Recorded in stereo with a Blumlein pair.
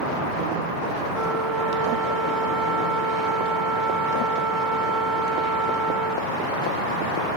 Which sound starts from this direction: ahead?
A flute, at 1.1 s.